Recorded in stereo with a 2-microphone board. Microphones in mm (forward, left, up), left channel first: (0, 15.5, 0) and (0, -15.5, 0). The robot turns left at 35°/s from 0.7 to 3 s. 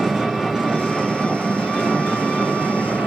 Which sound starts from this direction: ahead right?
An engine running, at 0.0 s.